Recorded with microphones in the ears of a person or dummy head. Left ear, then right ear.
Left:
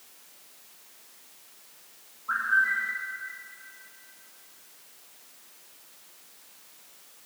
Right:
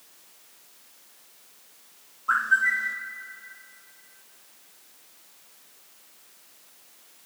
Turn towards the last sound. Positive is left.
turn(degrees=-60)  # may be behind; listen again after turning